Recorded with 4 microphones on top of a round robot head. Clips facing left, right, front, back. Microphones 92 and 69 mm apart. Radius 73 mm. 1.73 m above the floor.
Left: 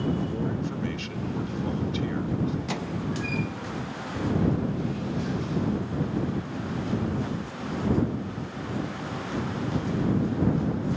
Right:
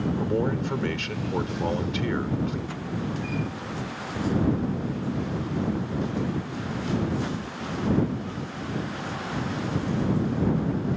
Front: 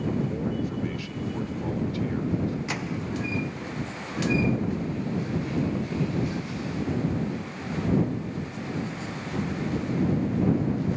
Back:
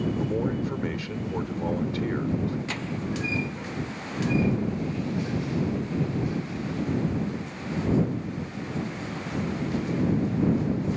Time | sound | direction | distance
0.2 | a man speaking | 120° right | ?
2.7 | a microwave | 75° left | ?